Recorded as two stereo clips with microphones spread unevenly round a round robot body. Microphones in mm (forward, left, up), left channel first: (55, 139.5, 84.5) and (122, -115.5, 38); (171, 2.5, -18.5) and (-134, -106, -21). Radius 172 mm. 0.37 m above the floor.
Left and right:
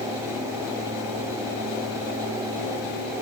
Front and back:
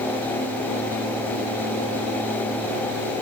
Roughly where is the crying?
I don't hear crying.